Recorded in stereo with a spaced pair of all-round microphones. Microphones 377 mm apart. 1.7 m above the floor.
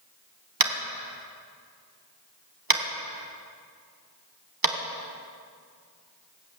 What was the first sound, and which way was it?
Tapping, 60° right (ahead or behind).